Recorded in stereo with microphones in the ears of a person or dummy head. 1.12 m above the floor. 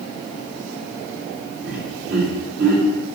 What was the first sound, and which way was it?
Laughter, 60° right (ahead or behind).